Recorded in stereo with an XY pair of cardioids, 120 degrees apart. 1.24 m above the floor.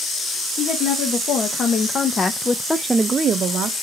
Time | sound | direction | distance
0.6 | a woman speaking | 60° left | 1.8 m